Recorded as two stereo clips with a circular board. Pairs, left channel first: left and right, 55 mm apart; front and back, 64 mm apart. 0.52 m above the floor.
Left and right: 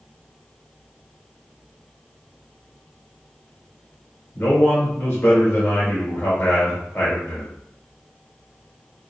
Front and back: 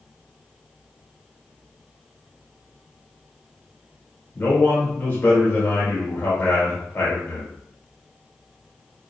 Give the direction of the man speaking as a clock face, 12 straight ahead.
10 o'clock.